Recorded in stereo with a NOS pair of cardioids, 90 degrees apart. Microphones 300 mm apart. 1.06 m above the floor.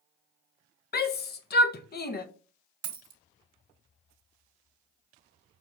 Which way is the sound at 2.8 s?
55° right.